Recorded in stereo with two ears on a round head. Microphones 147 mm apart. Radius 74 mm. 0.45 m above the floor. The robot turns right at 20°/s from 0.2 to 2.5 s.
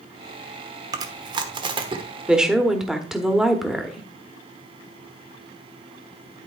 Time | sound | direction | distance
0.9 | chewing | 25° right (ahead or behind) | 1.0 m
2.3 | a woman speaking | 5° right (ahead or behind) | 1.1 m